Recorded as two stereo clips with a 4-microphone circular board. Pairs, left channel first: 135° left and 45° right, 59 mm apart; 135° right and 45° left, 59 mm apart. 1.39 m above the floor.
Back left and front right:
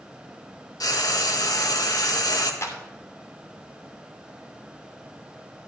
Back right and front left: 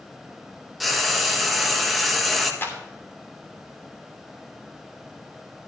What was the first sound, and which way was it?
Frying, 135° left.